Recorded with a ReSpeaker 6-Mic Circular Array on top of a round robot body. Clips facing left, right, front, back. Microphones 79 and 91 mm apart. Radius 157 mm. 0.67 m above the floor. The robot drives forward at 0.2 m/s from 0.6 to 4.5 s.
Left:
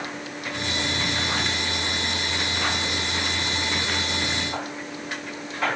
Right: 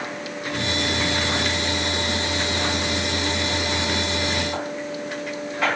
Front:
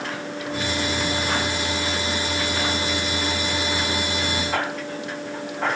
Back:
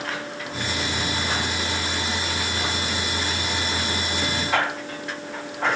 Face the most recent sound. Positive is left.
No sound to turn to.